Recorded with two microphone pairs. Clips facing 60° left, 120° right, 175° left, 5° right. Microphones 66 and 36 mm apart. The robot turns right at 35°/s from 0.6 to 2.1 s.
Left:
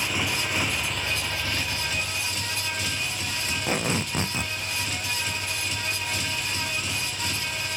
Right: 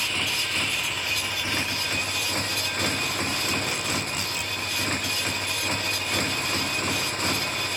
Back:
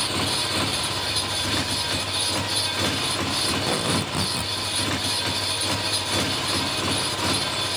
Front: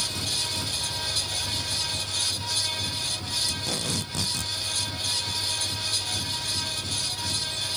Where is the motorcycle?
135° left; by 7.8 s 170° right.